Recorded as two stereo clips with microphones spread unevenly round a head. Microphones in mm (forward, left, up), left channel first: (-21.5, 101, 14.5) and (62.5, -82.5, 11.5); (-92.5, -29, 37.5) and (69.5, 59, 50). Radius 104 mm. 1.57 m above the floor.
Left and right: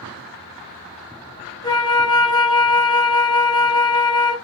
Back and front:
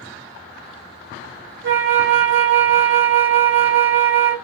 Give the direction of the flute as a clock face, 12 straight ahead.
11 o'clock.